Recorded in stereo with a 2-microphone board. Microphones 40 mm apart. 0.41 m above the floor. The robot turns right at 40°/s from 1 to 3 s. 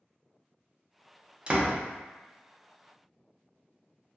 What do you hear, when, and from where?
1.5 s a door slam: 30° right (ahead or behind), 0.5 m